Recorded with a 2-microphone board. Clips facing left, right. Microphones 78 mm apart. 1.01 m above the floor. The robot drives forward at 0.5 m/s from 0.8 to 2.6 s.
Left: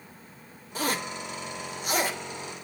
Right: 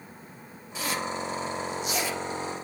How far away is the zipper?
About 1.0 m.